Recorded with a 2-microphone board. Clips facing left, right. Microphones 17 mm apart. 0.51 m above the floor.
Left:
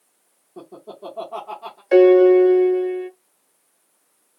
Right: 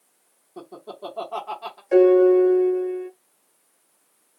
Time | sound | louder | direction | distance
0.6 | laughter | even | 30° right (ahead or behind) | 1.0 m
1.9 | a piano | left 3 dB | 60° left (ahead or behind) | 0.6 m